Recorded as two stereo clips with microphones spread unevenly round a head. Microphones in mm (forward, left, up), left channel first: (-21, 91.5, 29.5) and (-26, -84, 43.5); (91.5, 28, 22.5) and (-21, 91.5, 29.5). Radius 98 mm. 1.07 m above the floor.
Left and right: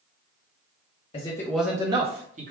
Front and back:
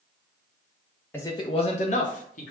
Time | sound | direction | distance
1.1 | a man speaking | 40° left | 0.6 m